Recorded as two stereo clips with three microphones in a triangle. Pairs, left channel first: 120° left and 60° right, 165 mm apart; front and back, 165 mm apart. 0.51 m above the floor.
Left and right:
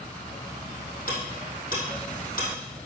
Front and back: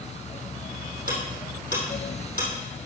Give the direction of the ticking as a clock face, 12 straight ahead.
7 o'clock.